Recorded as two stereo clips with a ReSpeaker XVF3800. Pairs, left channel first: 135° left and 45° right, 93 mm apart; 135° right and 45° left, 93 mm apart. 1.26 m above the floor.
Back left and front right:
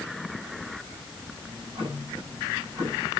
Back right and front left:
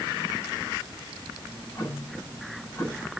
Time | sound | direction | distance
1.4 | ticking | 75° right | 9 m